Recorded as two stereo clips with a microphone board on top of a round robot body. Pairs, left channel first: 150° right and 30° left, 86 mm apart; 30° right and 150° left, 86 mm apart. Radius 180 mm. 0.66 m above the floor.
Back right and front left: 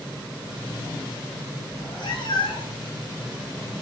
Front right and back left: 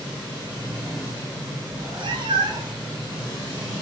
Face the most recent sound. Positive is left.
turn(degrees=-165)